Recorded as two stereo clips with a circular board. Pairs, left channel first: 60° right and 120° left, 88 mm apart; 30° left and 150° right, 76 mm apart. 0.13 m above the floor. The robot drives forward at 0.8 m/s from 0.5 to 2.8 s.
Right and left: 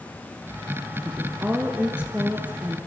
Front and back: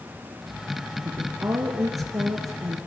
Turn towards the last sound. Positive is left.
turn(degrees=-170)